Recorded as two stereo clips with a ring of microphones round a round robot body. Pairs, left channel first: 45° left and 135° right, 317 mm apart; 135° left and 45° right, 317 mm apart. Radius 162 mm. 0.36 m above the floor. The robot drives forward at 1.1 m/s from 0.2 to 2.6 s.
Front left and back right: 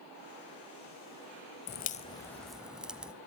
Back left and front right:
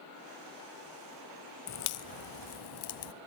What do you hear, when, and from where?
1.7 s a crack: 100° left, 1.2 m; by 3.1 s 140° left, 1.7 m